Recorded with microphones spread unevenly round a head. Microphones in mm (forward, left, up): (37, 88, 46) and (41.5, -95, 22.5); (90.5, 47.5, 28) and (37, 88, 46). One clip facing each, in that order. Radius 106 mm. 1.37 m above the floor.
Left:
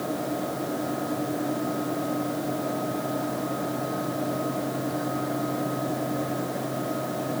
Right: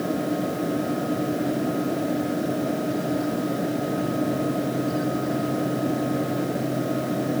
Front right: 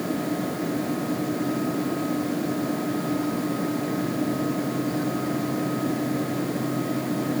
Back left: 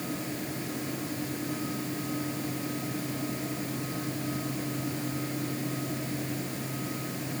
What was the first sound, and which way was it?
Only background noise.